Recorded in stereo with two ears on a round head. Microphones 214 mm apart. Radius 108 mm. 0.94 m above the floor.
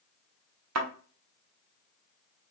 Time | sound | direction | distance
0.8 | a thud | 70° right (ahead or behind) | 0.9 m